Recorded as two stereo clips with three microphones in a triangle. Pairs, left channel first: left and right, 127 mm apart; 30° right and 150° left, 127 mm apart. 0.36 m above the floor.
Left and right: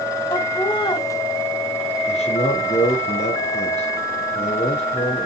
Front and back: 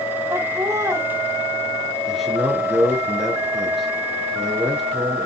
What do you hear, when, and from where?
0.3 s laughter: 100° left, 1.8 m
2.1 s a man speaking: 60° left, 4.5 m